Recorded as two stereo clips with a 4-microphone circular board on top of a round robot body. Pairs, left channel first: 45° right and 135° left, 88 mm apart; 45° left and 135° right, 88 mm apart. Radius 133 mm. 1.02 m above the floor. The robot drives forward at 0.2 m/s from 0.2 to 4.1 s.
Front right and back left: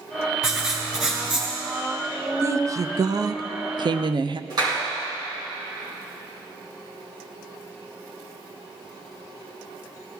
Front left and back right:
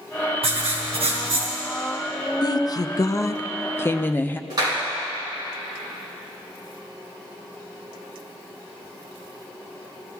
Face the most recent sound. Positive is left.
turn(degrees=180)